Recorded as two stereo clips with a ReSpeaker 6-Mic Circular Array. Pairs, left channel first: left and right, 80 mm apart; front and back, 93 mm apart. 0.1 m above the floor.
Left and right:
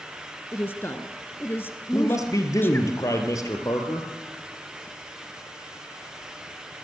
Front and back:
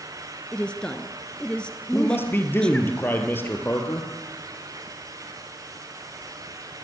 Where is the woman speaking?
70° left, 1.6 m.